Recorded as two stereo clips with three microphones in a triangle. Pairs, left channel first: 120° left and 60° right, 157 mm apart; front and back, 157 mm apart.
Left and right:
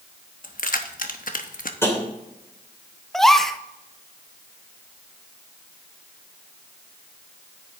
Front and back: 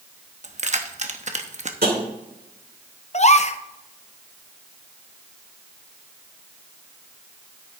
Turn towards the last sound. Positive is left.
turn(degrees=35)